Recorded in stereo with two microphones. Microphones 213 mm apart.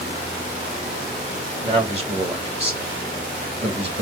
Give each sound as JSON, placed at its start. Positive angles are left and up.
{"t": 1.6, "sound": "a man speaking", "side_deg": -25, "distance_m": 2.0}